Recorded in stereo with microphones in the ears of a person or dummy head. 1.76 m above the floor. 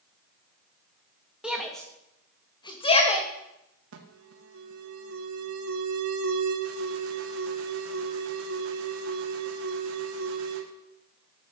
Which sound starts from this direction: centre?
A shout, at 1.4 s.